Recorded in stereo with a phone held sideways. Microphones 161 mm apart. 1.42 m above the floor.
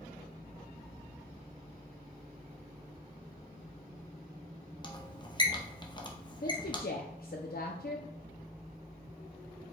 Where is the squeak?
30° left (ahead or behind), 0.7 m.